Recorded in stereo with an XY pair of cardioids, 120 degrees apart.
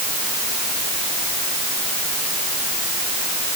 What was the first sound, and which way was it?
Only background noise.